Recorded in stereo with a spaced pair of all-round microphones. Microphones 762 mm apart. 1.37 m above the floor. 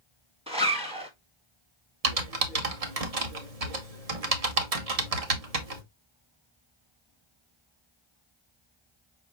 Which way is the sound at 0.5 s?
10° right (ahead or behind).